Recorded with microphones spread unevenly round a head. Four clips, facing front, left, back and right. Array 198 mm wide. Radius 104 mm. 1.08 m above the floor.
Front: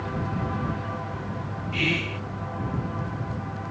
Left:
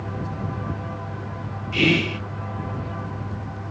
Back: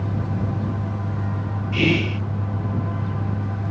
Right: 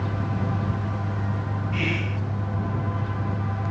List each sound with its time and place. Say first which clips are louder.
0.0 s a fan: right 2 dB, back 2 dB; 160° right
1.7 s whispering: left 10 dB, back 8 dB; 130° left